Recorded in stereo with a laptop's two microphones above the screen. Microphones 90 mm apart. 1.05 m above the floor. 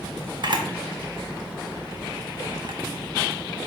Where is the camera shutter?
55° right (ahead or behind), 0.6 m.